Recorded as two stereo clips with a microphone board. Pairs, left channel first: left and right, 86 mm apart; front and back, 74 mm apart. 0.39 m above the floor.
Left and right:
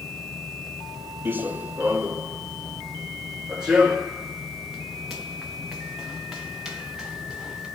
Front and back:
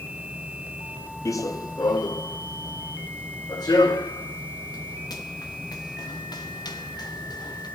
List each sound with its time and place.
1.2 s running footsteps: 30° right, 0.6 m; by 7.7 s 5° right, 4.5 m